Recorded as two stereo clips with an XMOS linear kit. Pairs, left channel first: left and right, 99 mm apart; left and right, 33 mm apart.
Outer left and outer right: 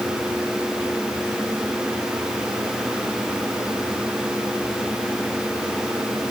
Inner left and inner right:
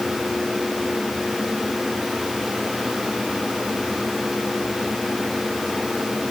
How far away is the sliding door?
No sliding door in this recording.